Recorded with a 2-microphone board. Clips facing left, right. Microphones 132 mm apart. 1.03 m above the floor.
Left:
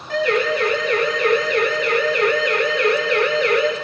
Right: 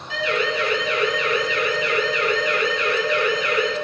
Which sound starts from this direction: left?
A siren, at 0.1 s.